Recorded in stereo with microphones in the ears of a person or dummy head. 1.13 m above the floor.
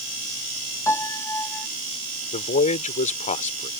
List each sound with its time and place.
0.9 s a piano: 15° left (ahead or behind)
2.3 s a man speaking: 40° left (ahead or behind)